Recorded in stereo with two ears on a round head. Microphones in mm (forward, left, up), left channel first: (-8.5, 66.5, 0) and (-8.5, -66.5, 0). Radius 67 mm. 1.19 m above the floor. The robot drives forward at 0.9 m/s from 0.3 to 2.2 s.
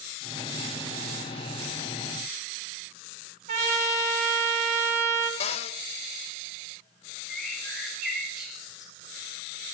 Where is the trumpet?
50° right (ahead or behind), 2 m.